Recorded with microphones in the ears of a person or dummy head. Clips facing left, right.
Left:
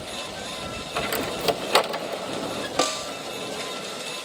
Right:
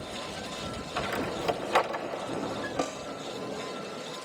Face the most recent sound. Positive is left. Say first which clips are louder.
# left 8 dB
turn(degrees=65)  # may be behind; listen again after turning